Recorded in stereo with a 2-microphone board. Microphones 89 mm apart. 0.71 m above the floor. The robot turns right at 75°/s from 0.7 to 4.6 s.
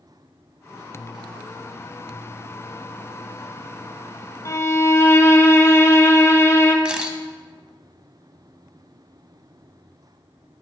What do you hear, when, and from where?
4.5 s a violin: 40° left (ahead or behind), 0.7 m; by 6.8 s 30° left (ahead or behind), 0.7 m
6.8 s a camera shutter: 10° right (ahead or behind), 0.6 m